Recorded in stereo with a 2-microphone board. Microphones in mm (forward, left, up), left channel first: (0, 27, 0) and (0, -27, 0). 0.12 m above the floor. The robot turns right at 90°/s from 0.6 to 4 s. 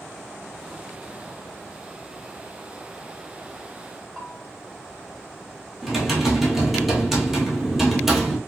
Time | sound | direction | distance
4.2 | a bell | 10° left (ahead or behind) | 0.9 m
5.8 | typing on a keyboard | 5° right (ahead or behind) | 0.8 m